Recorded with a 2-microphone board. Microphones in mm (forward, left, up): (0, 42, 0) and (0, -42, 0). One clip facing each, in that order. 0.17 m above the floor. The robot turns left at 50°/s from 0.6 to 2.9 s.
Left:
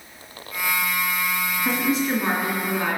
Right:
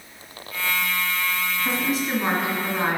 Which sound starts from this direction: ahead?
A woman speaking, at 1.6 s.